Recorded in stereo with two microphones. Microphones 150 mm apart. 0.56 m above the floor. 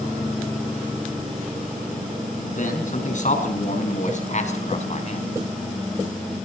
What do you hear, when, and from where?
2.5 s a man speaking: 60° left (ahead or behind), 5.5 m; by 5.3 s 50° left (ahead or behind), 4 m